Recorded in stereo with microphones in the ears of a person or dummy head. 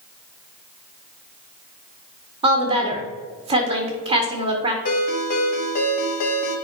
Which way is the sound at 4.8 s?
40° left (ahead or behind).